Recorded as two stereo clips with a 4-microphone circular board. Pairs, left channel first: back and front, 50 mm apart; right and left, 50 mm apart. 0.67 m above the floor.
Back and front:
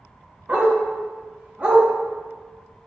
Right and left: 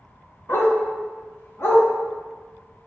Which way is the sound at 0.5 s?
55° right.